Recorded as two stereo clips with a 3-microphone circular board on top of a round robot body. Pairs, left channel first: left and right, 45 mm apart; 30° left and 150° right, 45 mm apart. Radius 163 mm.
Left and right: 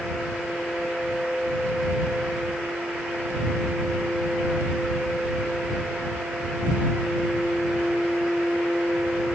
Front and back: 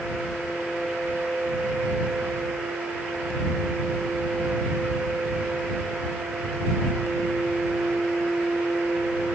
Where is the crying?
No crying in this recording.